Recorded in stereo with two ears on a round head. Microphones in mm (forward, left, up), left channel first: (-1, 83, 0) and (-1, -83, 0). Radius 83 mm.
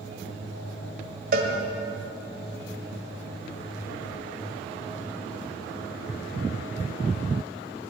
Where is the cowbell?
55° right (ahead or behind), 2.0 m.